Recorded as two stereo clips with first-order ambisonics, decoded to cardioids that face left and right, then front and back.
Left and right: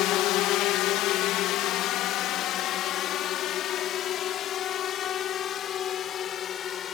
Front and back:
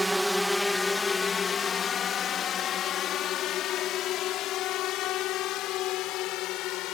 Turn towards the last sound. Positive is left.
turn(degrees=35)